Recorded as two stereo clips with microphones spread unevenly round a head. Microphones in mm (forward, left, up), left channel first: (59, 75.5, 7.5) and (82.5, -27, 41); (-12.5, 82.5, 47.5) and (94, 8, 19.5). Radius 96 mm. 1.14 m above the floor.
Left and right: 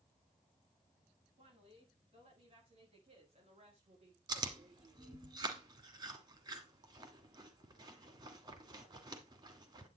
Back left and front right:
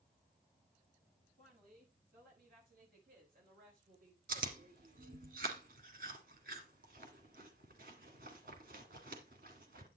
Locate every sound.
1.4 s a woman speaking: 55° right, 9 m; by 5.3 s 65° right, 3 m
4.3 s chewing: 80° right, 1.5 m